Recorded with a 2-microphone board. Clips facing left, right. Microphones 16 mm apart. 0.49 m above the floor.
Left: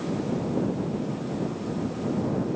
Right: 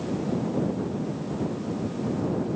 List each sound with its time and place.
Only background noise.